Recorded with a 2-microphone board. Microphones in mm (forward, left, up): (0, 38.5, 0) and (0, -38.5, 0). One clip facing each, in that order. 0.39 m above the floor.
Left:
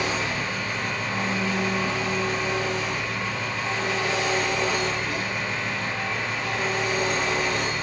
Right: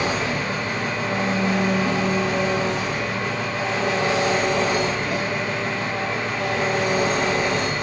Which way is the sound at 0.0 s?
65° right (ahead or behind).